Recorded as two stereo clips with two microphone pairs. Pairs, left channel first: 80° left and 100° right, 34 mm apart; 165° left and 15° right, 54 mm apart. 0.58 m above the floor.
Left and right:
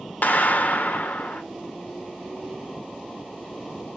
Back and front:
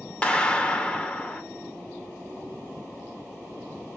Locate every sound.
0.2 s a clap: 95° left, 1.8 m